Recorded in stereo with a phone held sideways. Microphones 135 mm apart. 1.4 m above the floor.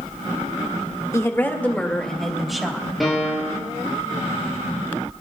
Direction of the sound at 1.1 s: 20° left (ahead or behind).